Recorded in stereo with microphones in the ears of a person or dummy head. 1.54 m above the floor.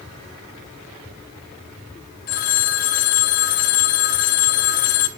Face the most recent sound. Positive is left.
turn(degrees=35)  # may be behind; listen again after turning